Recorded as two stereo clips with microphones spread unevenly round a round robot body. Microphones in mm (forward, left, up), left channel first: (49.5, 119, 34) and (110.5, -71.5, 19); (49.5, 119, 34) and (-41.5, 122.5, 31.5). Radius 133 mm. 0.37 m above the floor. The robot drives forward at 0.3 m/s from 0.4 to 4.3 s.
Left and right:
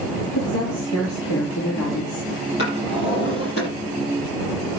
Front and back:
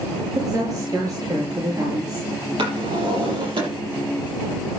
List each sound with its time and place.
0.3 s a woman speaking: 130° left, 6 m; by 2.3 s 135° left, 6.5 m
2.6 s a drawer: 160° left, 8 m